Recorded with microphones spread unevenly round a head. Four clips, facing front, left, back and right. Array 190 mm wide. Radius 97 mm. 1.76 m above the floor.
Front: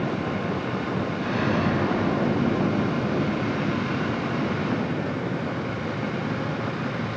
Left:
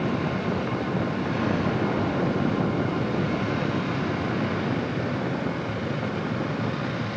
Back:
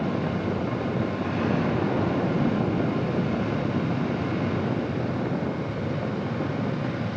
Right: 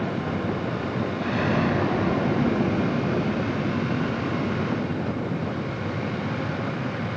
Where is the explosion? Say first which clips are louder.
Right 5 dB, front 3 dB; 65° right, 10 m.